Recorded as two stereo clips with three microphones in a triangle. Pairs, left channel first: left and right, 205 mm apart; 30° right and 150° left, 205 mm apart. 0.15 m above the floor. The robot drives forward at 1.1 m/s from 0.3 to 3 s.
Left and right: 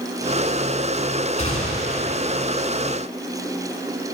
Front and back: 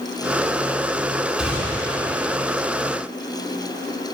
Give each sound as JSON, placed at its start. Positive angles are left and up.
{"t": 1.4, "sound": "a gunshot", "azimuth_deg": 65, "distance_m": 2.0}